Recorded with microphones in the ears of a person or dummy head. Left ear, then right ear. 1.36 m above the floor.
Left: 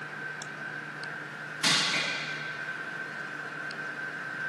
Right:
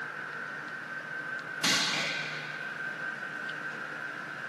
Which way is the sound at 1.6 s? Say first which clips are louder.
Left 2 dB; 15° left (ahead or behind).